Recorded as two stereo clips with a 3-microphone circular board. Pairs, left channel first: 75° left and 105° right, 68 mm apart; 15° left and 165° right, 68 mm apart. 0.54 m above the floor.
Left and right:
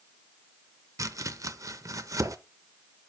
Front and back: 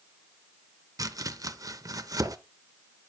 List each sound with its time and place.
1.0 s chopping: 140° right, 0.5 m